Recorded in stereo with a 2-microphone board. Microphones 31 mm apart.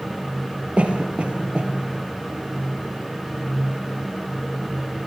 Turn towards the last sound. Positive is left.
turn(degrees=-40)  # may be behind; listen again after turning